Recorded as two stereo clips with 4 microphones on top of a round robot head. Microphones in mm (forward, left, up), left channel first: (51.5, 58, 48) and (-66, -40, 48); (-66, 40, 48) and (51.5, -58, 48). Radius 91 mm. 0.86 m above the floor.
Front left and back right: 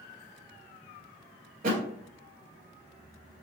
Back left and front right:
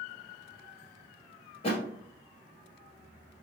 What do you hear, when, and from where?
1.6 s a thud: 170° right, 1.4 m